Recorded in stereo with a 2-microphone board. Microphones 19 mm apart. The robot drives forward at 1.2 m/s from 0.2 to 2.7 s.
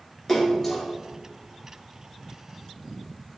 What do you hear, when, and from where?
0.3 s a splash: 15° left (ahead or behind), 2.5 m